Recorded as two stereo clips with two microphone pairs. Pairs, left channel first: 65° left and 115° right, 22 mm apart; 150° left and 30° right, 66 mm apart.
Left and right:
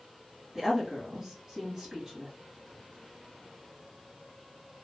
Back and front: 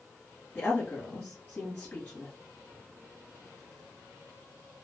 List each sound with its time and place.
0.6 s a woman speaking: 175° right, 1.4 m